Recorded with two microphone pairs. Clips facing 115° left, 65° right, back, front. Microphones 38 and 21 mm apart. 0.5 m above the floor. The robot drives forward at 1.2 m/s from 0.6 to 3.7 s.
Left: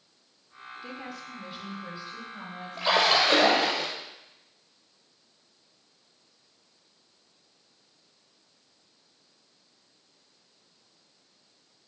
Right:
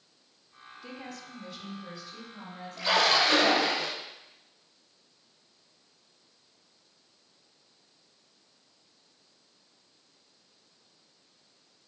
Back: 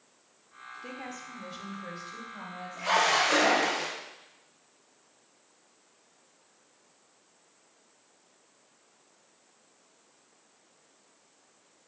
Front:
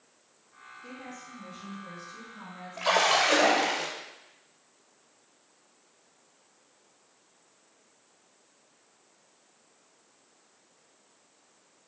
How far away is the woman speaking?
About 1.1 m.